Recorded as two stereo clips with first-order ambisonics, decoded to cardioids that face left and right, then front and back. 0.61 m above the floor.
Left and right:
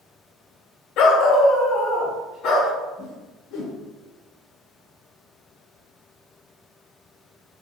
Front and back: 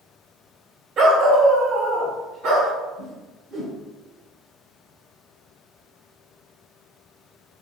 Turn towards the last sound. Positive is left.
turn(degrees=120)